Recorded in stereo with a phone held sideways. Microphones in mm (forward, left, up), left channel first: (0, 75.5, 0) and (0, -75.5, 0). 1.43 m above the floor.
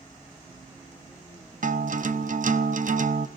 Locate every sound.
1.6 s a guitar: 65° right (ahead or behind), 0.7 m